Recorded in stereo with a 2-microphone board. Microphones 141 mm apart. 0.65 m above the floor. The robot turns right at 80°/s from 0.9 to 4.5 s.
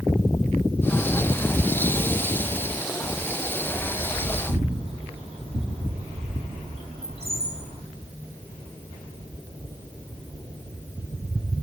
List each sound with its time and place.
3.7 s a bird: 70° right (ahead or behind), 7 m; by 7.8 s 45° right (ahead or behind), 7 m